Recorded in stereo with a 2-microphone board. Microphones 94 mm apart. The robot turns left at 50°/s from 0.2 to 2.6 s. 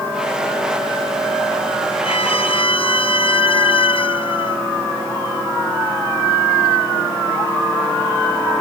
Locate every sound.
2.0 s a violin: 80° left; by 4.6 s 70° left (ahead or behind)